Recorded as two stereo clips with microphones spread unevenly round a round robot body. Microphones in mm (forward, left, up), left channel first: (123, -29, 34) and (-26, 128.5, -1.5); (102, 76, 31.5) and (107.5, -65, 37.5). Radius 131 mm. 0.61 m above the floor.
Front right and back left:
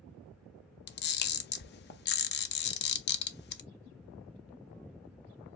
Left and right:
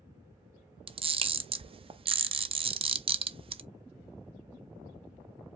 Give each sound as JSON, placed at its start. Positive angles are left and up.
{"t": 0.9, "sound": "a camera shutter", "azimuth_deg": -65, "distance_m": 0.6}